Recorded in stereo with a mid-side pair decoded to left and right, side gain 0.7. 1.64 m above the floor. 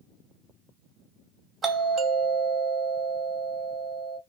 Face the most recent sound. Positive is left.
turn(degrees=-35)